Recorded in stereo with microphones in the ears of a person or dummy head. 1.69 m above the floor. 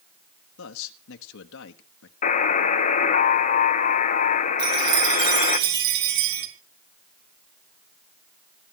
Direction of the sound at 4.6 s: 65° right (ahead or behind).